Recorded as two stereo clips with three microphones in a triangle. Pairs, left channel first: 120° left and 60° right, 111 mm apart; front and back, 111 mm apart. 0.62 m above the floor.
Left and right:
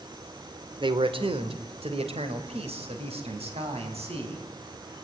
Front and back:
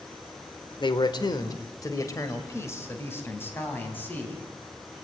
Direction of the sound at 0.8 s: 30° right.